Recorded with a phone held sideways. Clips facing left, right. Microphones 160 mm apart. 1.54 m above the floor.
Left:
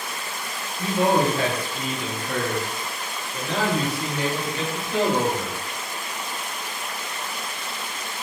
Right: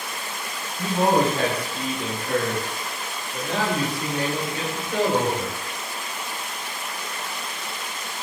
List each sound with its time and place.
0.8 s a man speaking: 75° right (ahead or behind), 5 m